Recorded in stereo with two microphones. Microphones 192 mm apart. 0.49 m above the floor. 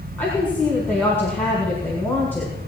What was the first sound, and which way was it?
A woman speaking, 10° left (ahead or behind).